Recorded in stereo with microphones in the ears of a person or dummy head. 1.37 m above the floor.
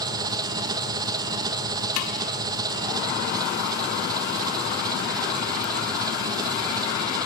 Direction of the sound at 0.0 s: 20° right (ahead or behind).